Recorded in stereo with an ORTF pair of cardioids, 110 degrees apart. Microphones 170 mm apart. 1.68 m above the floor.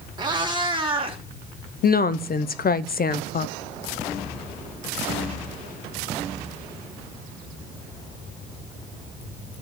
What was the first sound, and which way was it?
A cat meowing, 25° right.